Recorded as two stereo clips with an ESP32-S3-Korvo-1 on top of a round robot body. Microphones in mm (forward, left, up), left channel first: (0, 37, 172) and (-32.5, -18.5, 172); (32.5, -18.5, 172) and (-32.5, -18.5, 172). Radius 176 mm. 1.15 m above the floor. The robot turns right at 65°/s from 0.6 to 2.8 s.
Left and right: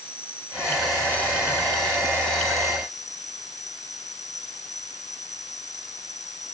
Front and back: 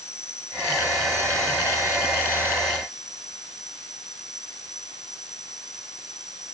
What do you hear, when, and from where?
0.0 s an insect: 45° right; by 6.5 s 95° left